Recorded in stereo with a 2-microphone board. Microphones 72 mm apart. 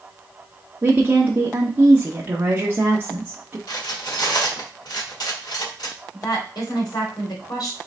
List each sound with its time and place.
0.8 s a woman speaking: 25° right (ahead or behind), 1.0 m
3.7 s cutlery clinking: 70° left (ahead or behind), 1.5 m
6.1 s a woman speaking: 70° left (ahead or behind), 2.5 m